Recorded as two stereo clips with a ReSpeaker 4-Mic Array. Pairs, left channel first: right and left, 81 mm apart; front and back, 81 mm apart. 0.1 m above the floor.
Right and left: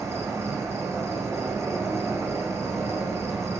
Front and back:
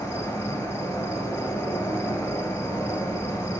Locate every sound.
0.0 s an insect: 50° left, 3 m